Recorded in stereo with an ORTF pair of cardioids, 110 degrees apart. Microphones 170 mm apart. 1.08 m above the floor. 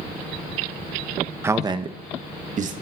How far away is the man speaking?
About 0.6 m.